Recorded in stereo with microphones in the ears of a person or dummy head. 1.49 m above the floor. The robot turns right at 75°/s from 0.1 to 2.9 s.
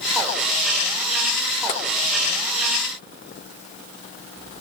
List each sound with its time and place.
1.7 s tapping: 45° left (ahead or behind), 0.7 m